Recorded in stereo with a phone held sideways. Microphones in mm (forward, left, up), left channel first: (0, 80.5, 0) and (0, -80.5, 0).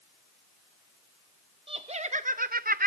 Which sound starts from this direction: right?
Laughter, at 1.7 s.